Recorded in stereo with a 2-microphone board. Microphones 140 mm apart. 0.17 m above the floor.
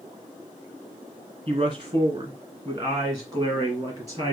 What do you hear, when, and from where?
1.5 s a man speaking: 30° right (ahead or behind), 1.7 m; by 4.3 s 25° right (ahead or behind), 3 m